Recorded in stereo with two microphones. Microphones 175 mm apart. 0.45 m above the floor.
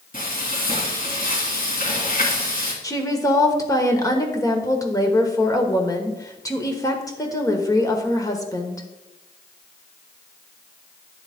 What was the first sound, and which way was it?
Frying, 55° left (ahead or behind).